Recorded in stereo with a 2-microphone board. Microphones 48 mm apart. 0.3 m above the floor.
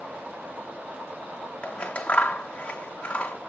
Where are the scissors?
30° left (ahead or behind), 1.1 m.